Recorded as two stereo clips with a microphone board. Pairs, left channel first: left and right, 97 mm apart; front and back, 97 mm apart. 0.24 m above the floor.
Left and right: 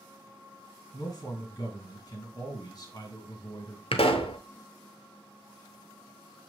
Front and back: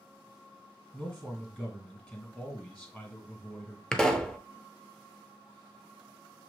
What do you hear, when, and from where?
0.9 s a man speaking: 65° left, 2 m
3.9 s a pop: 85° left, 0.6 m